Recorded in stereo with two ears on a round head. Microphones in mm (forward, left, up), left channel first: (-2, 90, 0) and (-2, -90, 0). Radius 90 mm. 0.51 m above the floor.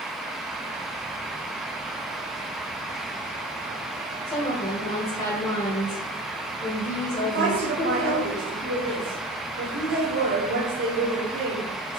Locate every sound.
4.3 s a woman speaking: 30° left (ahead or behind), 1.5 m
7.2 s a woman speaking: 55° right (ahead or behind), 2 m